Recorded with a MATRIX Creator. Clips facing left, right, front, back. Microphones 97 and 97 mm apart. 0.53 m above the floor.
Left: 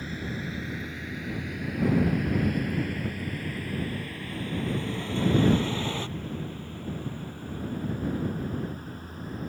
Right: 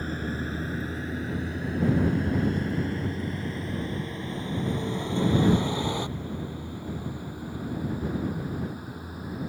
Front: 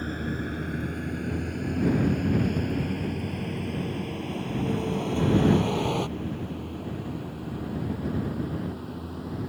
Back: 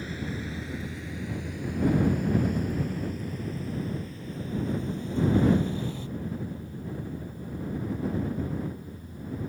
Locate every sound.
0.0 s a vehicle: 40° right; by 9.5 s 10° right